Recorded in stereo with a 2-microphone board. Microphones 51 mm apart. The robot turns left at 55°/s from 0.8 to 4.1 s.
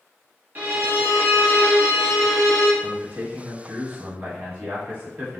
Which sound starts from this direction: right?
A violin, at 0.6 s.